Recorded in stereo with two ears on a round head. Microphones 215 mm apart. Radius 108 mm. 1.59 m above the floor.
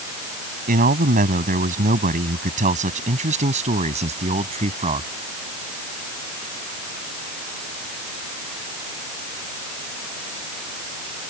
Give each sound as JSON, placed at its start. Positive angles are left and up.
{"t": 0.7, "sound": "a man speaking", "side_deg": -35}